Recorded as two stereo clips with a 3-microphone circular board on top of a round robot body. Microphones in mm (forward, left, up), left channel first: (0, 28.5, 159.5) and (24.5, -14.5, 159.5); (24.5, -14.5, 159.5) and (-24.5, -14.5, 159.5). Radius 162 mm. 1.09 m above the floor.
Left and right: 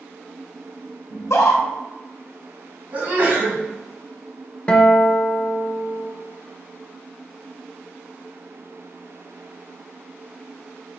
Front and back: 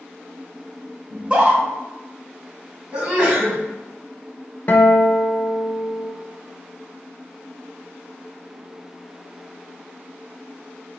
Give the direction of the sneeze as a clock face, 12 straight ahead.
4 o'clock.